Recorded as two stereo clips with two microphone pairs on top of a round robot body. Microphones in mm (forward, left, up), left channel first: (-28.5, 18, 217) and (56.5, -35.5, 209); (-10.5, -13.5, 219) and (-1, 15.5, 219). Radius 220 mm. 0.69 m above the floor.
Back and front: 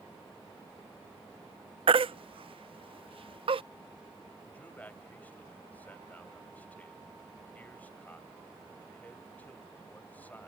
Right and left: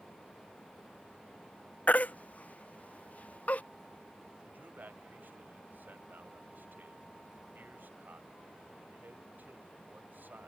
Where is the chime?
I don't hear a chime.